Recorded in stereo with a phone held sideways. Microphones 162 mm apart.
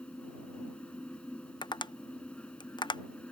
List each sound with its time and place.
0.0 s a fan: 5° left (ahead or behind)
1.6 s tapping: 30° left (ahead or behind)